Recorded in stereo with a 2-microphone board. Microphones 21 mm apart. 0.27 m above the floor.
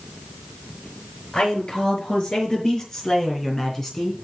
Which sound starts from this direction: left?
A man speaking, at 1.3 s.